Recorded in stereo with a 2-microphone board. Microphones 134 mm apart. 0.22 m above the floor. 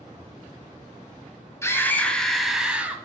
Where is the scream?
20° left (ahead or behind), 1.0 m; by 3.0 s 10° right (ahead or behind), 1.2 m.